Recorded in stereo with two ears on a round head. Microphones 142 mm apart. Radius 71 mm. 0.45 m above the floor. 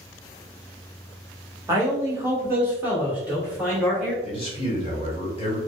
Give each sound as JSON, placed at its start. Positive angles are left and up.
{"t": 1.7, "sound": "a man speaking", "side_deg": -20, "distance_m": 1.2}
{"t": 4.2, "sound": "a man speaking", "side_deg": 35, "distance_m": 1.5}